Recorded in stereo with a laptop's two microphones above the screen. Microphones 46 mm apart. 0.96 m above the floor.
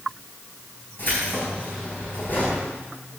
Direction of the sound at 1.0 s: 45° left (ahead or behind).